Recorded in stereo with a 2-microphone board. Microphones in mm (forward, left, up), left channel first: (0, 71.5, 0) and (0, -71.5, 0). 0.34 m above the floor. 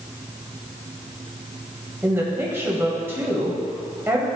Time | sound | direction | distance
2.0 | a woman speaking | 15° right (ahead or behind) | 1.8 m